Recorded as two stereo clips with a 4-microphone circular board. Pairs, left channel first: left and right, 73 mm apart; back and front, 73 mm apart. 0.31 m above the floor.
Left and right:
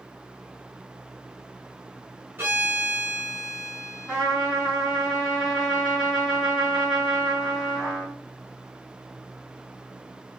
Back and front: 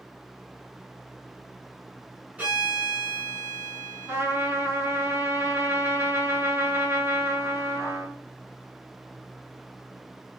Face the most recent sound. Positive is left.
turn(degrees=-25)